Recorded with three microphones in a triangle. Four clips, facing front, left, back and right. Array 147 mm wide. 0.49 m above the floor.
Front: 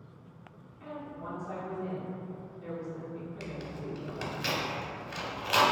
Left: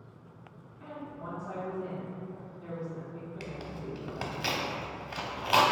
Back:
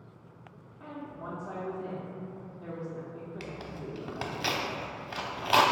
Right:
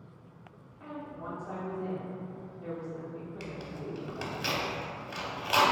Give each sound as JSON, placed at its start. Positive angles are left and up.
{"t": 0.8, "sound": "a woman speaking", "azimuth_deg": -160, "distance_m": 0.8}
{"t": 3.4, "sound": "tearing paper", "azimuth_deg": 150, "distance_m": 0.6}